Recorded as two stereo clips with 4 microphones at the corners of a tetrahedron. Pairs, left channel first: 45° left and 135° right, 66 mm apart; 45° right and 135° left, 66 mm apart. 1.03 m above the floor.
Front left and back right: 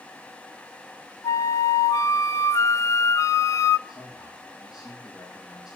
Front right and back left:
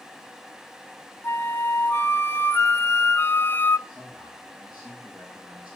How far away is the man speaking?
About 5 m.